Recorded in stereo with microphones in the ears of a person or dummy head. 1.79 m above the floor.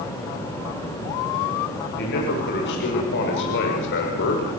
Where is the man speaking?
65° left (ahead or behind), 7.5 m.